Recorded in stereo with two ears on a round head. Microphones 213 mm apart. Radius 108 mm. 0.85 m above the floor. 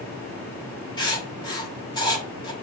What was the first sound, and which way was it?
Writing, 20° left (ahead or behind).